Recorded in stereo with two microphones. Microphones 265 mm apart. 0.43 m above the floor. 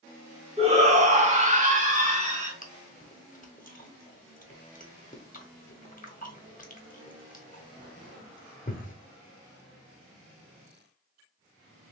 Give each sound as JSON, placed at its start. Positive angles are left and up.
{"t": 0.6, "sound": "a shout", "side_deg": -25, "distance_m": 0.9}
{"t": 2.6, "sound": "chewing", "side_deg": 30, "distance_m": 0.7}